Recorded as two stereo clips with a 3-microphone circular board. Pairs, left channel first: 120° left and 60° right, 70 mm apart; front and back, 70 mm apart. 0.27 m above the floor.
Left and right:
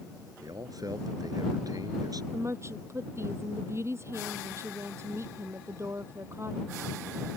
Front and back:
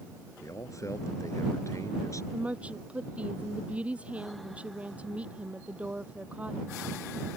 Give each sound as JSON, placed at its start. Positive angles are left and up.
{"t": 0.4, "sound": "a man speaking", "azimuth_deg": -40}
{"t": 2.3, "sound": "a woman speaking", "azimuth_deg": -110}